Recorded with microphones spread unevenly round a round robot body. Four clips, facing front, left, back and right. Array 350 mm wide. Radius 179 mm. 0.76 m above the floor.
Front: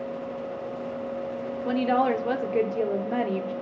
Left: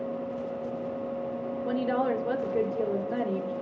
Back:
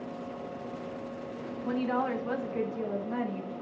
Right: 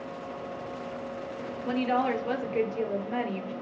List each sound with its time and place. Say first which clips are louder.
1.6 s a woman speaking: right 1 dB, front 7 dB; 15° left, 2 m